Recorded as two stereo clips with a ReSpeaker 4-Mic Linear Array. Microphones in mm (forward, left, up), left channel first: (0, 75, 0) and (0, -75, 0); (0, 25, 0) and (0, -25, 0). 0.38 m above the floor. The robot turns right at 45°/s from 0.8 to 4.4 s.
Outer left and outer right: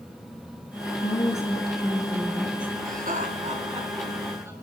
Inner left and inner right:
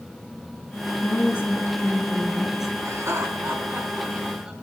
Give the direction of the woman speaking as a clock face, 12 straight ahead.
8 o'clock.